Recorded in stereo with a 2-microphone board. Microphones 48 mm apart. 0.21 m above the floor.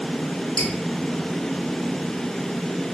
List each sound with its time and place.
0.6 s dripping: 15° left (ahead or behind), 1.1 m